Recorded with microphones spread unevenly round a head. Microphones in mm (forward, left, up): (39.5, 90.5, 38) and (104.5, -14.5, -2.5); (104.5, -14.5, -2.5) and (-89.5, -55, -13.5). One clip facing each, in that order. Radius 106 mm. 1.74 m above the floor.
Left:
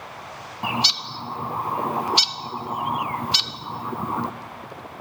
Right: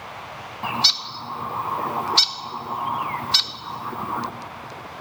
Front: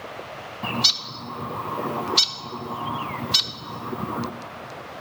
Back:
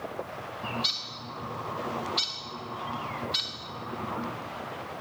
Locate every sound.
0.6 s a bird: 50° left, 0.6 m